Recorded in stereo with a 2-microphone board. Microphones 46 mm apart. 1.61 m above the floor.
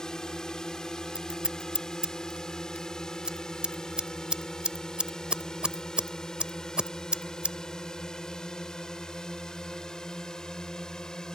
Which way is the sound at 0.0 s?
15° left (ahead or behind).